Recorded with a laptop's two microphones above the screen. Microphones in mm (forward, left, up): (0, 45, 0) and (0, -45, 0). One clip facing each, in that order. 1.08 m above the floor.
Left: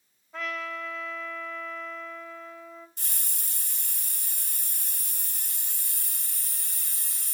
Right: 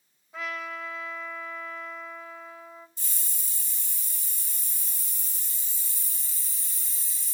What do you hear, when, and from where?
0.3 s a trumpet: 5° right (ahead or behind), 3.5 m
3.0 s a hiss: 60° left (ahead or behind), 0.8 m